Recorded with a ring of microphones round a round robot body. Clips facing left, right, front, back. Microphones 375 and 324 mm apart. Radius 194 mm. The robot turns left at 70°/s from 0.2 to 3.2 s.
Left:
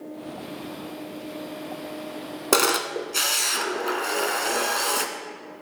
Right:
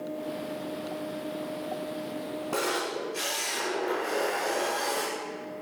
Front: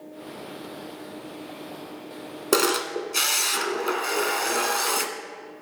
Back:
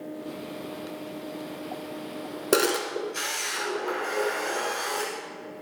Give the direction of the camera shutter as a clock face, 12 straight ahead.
9 o'clock.